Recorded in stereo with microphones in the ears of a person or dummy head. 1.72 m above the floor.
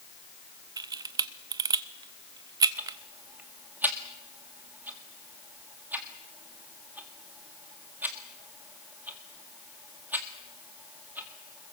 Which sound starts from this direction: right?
A camera shutter, at 0.8 s.